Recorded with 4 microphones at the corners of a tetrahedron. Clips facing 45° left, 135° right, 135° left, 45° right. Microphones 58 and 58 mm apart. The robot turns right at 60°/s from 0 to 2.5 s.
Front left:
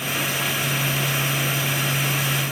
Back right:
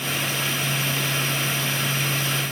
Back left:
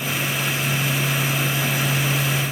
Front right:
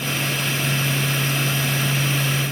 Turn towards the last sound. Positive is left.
No sound to turn to.